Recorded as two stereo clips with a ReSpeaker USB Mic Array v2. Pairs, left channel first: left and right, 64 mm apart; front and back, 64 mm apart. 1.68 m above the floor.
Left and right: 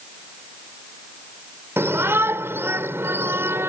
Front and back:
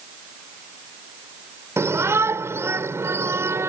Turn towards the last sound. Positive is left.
turn(degrees=-135)